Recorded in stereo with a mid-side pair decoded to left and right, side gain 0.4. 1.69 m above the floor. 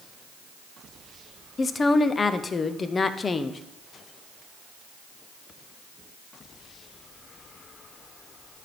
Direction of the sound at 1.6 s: 40° left.